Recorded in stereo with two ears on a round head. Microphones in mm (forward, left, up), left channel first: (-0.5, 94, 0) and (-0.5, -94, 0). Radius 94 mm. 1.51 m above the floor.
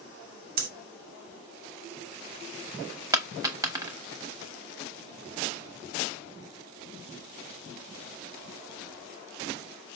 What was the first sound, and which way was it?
Breathing, 45° right (ahead or behind).